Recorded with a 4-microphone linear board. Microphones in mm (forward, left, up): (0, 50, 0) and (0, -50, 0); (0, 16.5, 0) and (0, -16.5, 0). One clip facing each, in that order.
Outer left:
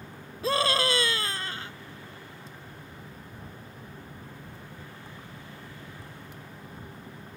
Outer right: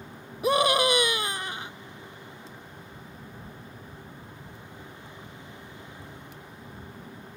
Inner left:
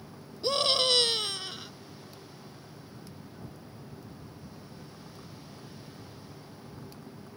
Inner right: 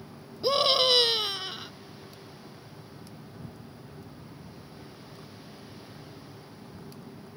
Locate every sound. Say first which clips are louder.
0.4 s a scream: outer right 4 dB, inner right 3 dB; 20° right (ahead or behind)